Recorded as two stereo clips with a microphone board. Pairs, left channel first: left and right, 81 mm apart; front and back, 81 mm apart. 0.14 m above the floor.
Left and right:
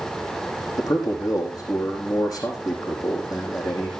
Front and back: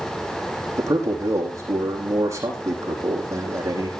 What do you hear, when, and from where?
0.8 s a man speaking: 130° left, 5.5 m